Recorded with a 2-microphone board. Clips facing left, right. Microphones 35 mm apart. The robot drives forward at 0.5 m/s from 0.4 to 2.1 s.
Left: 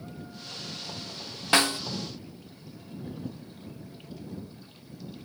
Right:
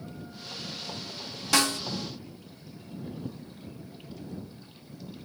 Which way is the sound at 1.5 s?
35° left (ahead or behind).